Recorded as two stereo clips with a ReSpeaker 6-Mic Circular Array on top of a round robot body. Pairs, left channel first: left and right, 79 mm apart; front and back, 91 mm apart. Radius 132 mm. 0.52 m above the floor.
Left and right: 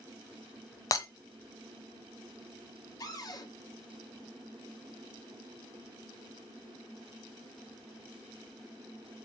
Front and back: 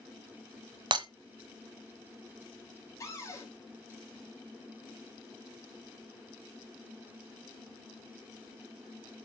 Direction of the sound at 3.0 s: 50° left.